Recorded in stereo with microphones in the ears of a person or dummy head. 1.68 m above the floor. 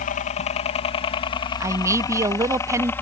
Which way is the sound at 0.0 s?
45° left (ahead or behind).